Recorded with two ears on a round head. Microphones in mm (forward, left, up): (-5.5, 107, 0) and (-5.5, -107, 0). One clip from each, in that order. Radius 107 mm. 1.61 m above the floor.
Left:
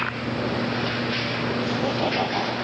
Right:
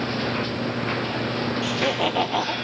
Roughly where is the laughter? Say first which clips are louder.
Right 4 dB; right.